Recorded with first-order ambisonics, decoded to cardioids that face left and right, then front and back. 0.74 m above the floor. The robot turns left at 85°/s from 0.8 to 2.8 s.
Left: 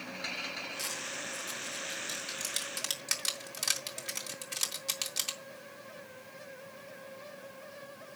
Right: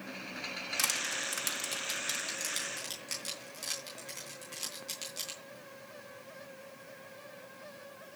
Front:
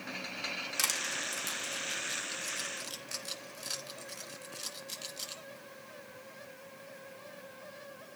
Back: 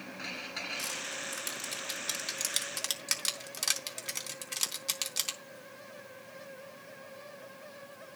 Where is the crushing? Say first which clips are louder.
Right 5 dB, front 4 dB; 35° right, 3.5 m; by 5.4 s 155° left, 3.5 m.